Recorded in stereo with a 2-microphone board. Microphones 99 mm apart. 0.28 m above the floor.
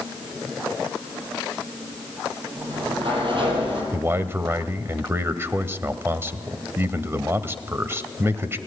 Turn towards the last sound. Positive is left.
turn(degrees=-25)  # may be behind; listen again after turning